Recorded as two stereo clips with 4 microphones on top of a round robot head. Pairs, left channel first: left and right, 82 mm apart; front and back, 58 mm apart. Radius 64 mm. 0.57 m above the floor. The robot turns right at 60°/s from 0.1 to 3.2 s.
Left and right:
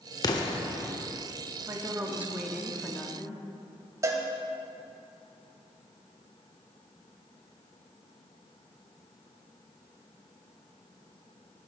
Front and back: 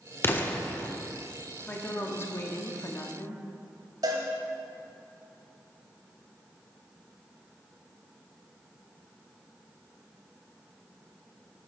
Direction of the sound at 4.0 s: 145° right.